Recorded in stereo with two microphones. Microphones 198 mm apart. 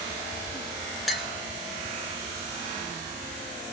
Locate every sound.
1.1 s a clink: centre (ahead or behind), 0.7 m